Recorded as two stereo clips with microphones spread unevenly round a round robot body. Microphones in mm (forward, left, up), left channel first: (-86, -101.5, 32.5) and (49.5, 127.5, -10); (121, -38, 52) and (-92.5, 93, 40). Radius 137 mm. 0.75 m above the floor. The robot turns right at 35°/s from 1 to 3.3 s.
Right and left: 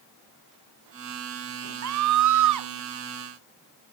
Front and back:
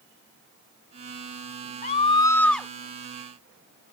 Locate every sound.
1.8 s a scream: 30° left; by 2.7 s 60° left